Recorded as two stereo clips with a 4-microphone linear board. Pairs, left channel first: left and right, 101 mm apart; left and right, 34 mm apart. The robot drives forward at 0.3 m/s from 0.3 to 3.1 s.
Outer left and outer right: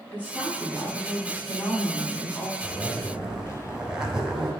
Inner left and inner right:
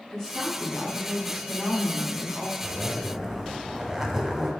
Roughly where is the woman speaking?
Centre.